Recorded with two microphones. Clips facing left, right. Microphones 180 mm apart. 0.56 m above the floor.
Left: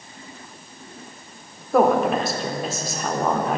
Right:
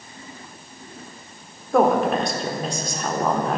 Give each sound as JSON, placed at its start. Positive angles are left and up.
{"t": 1.7, "sound": "a woman speaking", "side_deg": 0, "distance_m": 1.1}